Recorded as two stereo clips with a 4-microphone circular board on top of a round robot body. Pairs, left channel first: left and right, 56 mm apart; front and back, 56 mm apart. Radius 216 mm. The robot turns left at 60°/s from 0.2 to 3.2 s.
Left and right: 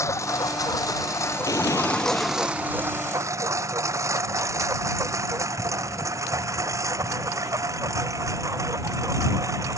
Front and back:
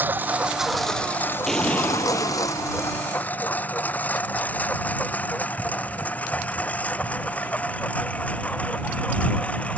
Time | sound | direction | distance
0.0 | a lawn mower | 125° left | ?
1.5 | an explosion | 85° left | ?